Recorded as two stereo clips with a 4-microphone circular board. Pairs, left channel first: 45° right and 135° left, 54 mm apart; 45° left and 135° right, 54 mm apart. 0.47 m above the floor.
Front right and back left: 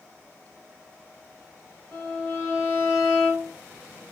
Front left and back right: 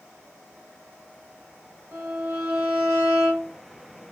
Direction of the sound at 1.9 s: 110° right.